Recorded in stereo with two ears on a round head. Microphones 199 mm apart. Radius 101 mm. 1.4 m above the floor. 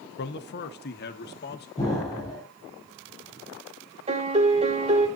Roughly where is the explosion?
Centre.